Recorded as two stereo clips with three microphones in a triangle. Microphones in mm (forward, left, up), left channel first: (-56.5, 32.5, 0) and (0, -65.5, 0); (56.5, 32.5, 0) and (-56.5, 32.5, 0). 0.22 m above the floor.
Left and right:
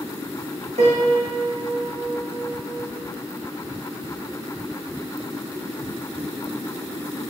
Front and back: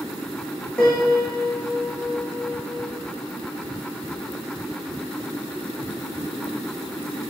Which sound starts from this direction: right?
A piano, at 0.8 s.